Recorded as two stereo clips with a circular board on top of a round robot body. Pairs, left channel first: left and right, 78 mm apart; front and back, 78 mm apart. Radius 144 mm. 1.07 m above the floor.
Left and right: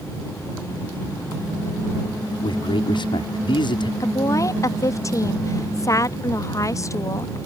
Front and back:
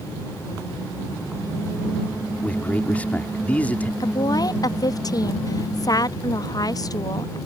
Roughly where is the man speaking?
Left.